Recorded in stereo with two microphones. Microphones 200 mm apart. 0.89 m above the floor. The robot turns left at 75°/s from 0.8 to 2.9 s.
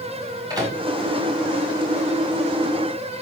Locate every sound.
0.5 s a microwave: 20° right (ahead or behind), 4.5 m